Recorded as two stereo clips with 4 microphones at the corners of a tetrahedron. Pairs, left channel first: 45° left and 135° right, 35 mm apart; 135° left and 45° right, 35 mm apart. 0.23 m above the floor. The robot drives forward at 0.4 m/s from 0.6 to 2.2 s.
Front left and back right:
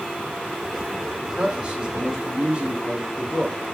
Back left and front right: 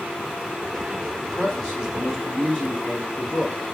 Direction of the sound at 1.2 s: 160° right.